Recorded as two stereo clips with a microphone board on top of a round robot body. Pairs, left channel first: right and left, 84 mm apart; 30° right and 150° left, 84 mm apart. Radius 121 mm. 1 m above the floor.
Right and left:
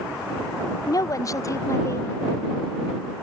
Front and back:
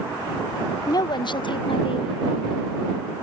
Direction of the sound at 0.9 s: 60° right.